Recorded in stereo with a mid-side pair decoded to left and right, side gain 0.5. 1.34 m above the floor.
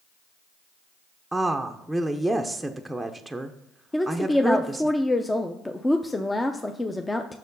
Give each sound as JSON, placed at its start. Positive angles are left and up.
{"t": 1.3, "sound": "a woman speaking", "azimuth_deg": -5, "distance_m": 0.6}
{"t": 3.9, "sound": "a woman speaking", "azimuth_deg": 15, "distance_m": 0.5}